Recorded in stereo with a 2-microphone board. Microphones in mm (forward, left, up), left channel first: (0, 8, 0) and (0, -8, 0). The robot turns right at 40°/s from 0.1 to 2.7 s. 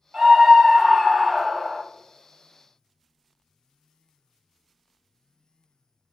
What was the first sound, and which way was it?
A scream, 60° right.